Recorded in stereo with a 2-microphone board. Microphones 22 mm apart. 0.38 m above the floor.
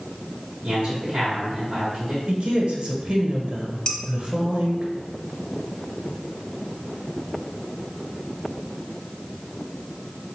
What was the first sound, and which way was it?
A man speaking, 30° right (ahead or behind).